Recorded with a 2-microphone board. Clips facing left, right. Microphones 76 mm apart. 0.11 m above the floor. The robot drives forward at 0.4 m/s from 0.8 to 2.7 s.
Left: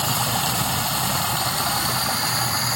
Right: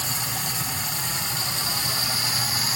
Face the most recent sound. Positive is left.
turn(degrees=45)  # may be behind; listen again after turning